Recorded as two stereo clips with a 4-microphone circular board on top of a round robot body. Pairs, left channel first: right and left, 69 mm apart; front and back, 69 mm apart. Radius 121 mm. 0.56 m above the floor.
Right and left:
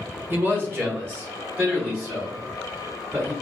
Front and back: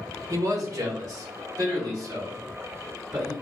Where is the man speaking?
145° left, 1.2 m.